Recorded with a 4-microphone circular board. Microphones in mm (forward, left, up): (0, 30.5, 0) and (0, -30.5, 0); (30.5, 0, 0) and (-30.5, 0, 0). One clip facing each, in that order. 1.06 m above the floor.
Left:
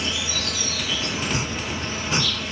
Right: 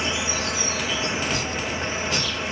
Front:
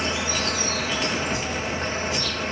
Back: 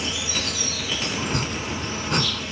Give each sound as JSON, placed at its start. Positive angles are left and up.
{"t": 0.0, "sound": "an insect", "azimuth_deg": -35}
{"t": 1.2, "sound": "chopping", "azimuth_deg": 155}